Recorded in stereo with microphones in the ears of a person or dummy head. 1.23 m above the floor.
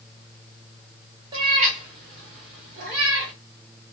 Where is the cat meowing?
25° right (ahead or behind), 0.8 m; by 3.3 s 70° right (ahead or behind), 1.6 m.